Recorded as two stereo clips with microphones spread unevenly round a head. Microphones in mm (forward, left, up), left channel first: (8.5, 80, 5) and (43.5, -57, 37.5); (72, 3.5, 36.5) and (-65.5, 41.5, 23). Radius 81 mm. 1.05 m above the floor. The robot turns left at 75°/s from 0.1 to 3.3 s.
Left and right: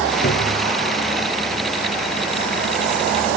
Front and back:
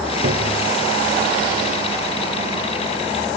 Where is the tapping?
135° left, 2 m; by 0.6 s 110° left, 2 m.